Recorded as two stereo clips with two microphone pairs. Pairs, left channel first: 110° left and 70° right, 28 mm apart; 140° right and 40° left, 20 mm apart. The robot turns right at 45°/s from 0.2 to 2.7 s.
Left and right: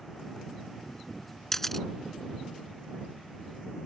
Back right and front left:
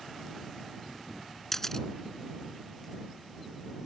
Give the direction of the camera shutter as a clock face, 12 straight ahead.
6 o'clock.